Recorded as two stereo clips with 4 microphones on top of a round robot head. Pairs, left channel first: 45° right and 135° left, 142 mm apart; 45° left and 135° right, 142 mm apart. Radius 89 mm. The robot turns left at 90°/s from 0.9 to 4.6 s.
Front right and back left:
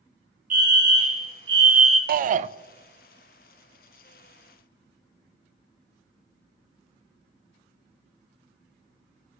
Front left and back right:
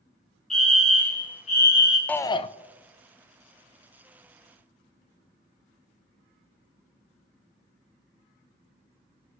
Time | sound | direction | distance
0.5 | a fire alarm | 135° left | 2 m
2.1 | a shout | 130° left | 0.6 m